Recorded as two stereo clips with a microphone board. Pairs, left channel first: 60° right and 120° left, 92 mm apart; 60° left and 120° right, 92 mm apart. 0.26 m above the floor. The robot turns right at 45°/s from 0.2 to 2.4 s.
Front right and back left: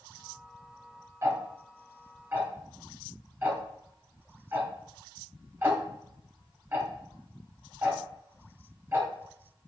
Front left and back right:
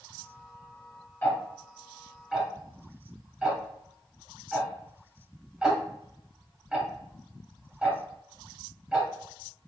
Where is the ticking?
110° left, 0.9 m; by 9.1 s 160° left, 0.9 m.